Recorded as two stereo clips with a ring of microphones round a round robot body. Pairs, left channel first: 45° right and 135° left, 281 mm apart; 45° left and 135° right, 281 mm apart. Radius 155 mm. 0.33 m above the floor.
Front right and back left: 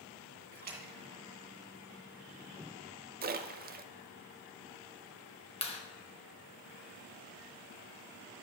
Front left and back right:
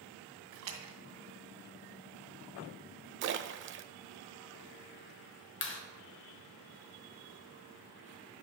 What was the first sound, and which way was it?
A splash, 165° right.